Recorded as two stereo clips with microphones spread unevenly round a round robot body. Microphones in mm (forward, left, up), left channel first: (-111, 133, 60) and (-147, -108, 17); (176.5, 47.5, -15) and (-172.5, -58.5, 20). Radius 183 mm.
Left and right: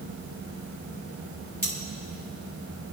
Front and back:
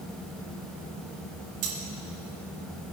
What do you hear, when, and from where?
1.6 s cutlery clinking: 165° left, 5.5 m